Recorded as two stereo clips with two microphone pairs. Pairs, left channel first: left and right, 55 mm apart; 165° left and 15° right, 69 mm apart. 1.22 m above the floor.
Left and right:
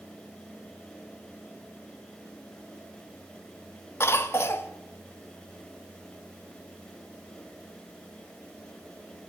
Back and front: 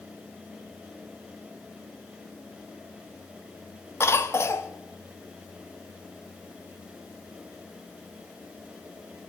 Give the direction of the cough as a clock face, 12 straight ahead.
8 o'clock.